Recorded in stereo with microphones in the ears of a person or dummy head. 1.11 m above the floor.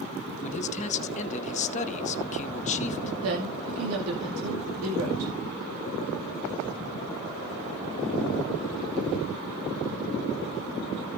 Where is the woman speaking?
80° right, 2 m.